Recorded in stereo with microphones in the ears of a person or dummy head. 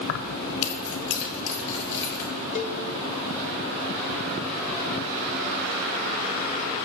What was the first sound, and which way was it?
Keys jangling, 70° left (ahead or behind).